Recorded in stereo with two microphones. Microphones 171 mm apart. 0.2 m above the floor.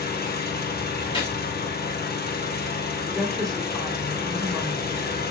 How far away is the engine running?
About 2 m.